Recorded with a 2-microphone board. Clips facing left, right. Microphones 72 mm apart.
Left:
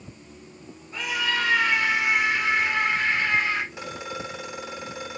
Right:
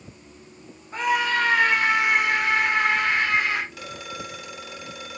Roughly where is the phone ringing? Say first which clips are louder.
Left 2 dB; left.